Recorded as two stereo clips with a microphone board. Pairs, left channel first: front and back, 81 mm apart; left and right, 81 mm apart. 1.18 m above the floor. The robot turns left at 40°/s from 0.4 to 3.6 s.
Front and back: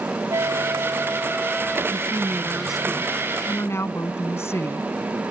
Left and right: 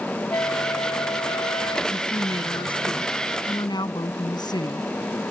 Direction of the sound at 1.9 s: 125° left.